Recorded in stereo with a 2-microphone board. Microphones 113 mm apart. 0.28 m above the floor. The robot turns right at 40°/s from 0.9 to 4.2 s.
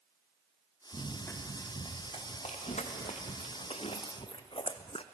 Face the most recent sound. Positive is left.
turn(degrees=55)  # may be behind; listen again after turning